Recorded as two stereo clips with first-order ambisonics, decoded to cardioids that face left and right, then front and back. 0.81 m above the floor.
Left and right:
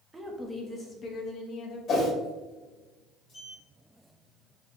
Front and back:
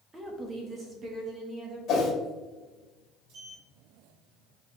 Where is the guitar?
I don't hear a guitar.